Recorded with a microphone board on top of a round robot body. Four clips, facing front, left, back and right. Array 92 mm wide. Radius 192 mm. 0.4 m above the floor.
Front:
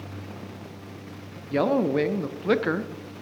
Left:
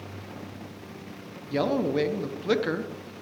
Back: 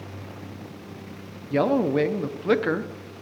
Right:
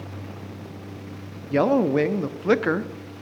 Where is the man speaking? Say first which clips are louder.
Right 6 dB, back 1 dB; 95° right, 0.9 m.